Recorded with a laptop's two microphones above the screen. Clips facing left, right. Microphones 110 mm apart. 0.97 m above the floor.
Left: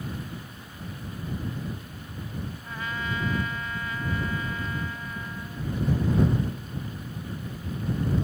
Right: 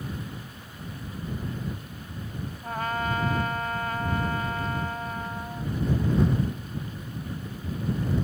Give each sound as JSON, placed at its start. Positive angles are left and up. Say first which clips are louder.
{"t": 2.6, "sound": "a trumpet", "louder": "right 7 dB", "side_deg": -55}